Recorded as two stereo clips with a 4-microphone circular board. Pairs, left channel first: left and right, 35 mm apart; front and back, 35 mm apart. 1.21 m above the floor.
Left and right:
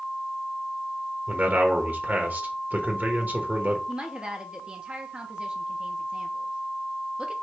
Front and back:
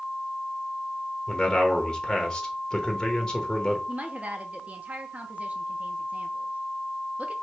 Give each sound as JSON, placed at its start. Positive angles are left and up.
{"t": 1.3, "sound": "a man speaking", "azimuth_deg": -70, "distance_m": 1.2}
{"t": 3.9, "sound": "a woman speaking", "azimuth_deg": -145, "distance_m": 0.7}